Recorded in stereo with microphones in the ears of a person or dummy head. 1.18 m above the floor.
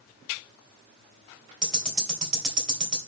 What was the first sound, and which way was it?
Ticking, 5° right (ahead or behind).